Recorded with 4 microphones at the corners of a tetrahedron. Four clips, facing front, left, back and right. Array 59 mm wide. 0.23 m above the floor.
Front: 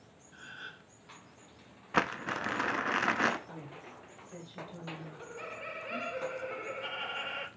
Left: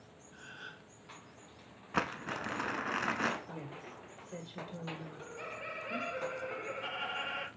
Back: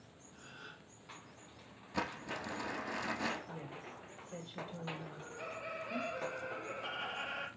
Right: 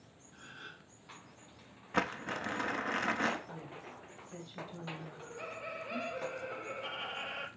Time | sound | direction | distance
0.3 | a gasp | 15° left | 3 m
1.9 | crumpling | straight ahead | 0.9 m
3.5 | a woman speaking | 90° left | 3.5 m
5.1 | laughter | 40° left | 4 m